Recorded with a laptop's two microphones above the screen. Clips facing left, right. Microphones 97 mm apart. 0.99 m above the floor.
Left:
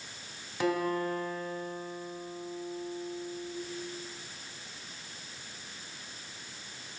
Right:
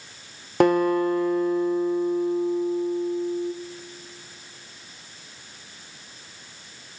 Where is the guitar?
60° right (ahead or behind), 0.6 m.